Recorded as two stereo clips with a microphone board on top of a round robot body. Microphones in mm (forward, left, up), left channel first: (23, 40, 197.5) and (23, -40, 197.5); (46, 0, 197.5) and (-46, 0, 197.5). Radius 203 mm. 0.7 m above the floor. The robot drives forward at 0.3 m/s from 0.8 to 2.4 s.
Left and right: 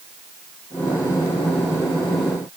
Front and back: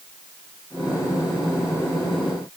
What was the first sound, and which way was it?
Only background noise.